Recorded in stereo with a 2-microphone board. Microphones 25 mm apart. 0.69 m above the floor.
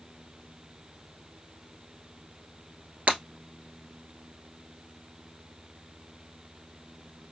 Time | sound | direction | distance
3.1 | breaking glass | 65° right (ahead or behind) | 1.5 m